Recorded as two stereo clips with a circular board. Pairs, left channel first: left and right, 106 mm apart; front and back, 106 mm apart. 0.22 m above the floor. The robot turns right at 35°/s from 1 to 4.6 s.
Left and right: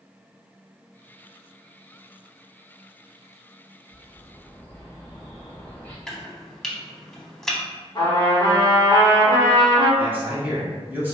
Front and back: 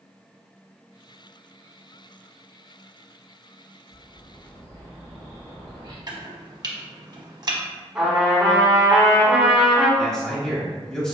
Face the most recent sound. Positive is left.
turn(degrees=-70)